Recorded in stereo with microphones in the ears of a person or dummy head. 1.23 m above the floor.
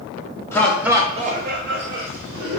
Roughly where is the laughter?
Centre.